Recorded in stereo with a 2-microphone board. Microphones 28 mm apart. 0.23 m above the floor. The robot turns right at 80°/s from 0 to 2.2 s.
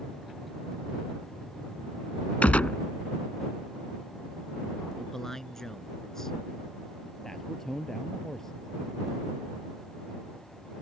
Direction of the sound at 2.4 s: 65° left (ahead or behind).